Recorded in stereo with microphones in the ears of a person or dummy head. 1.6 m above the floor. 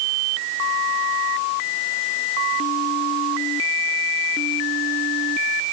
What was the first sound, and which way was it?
Only background noise.